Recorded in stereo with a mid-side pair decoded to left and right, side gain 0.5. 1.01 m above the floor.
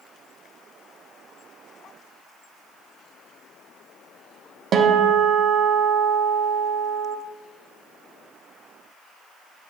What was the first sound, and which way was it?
A guitar, 55° right.